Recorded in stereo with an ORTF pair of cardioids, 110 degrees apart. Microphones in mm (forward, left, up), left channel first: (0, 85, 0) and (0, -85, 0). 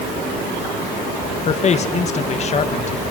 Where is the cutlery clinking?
I don't hear cutlery clinking.